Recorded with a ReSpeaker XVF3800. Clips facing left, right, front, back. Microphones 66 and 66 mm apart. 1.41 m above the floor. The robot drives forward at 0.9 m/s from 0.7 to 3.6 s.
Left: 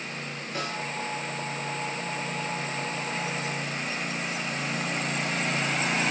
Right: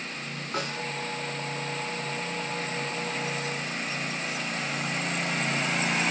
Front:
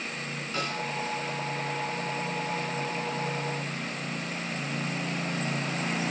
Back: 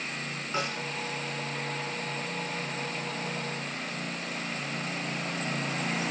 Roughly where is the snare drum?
Right.